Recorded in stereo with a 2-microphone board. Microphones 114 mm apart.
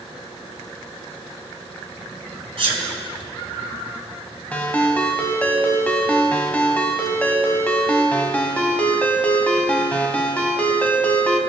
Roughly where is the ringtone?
Centre.